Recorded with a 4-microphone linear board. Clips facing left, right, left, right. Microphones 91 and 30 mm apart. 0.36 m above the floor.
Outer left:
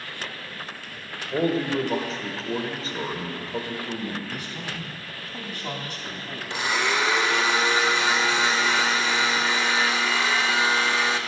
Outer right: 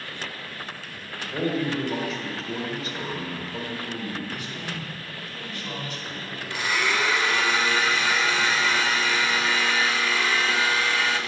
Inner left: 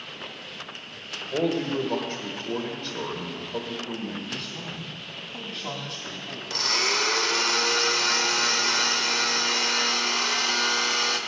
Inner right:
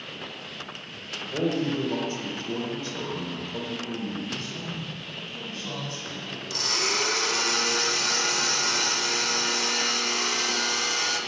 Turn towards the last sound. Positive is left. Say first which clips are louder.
# outer left 1 dB, inner left 2 dB
turn(degrees=20)  # may be behind; listen again after turning